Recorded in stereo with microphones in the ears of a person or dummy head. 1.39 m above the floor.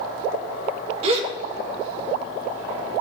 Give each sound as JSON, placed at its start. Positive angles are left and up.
{"t": 1.0, "sound": "a gasp", "side_deg": -40, "distance_m": 2.5}